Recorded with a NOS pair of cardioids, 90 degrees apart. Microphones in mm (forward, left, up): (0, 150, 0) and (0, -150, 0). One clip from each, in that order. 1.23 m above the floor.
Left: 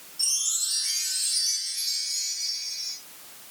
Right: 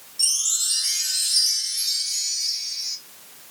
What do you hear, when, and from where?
0.2 s a chime: 25° right, 0.7 m